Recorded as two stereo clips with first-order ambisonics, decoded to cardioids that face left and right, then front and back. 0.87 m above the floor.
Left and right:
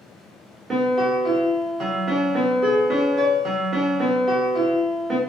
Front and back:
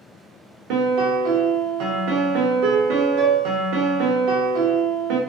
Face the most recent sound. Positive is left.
turn(degrees=-155)